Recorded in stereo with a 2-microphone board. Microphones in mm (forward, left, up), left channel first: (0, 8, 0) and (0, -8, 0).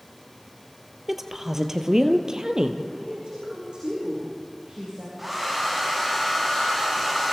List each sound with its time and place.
1.1 s a woman speaking: 20° right (ahead or behind), 2.5 m; by 2.8 s 50° right (ahead or behind), 3 m
2.9 s a woman speaking: 75° right (ahead or behind), 7.5 m
5.2 s a hair dryer: 10° right (ahead or behind), 7 m